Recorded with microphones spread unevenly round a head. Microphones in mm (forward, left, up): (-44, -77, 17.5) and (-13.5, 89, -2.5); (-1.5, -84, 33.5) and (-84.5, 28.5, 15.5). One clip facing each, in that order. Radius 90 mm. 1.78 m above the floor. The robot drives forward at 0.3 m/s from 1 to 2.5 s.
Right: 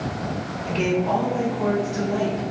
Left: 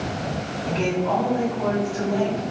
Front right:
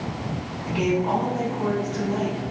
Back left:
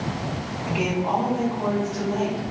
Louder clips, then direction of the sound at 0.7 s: Right 1 dB, front right 2 dB; 140° right.